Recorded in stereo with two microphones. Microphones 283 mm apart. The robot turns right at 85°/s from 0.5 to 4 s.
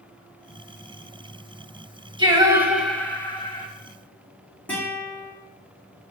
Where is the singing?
15° right (ahead or behind), 1.4 m; by 3.7 s 20° left (ahead or behind), 1.4 m.